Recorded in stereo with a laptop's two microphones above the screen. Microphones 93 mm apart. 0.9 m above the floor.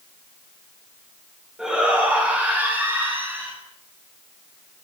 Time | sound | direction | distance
1.6 | a shout | 10° right (ahead or behind) | 7 m